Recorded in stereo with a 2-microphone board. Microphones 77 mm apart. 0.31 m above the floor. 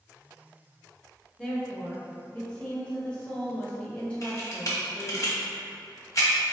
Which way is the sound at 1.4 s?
15° left (ahead or behind).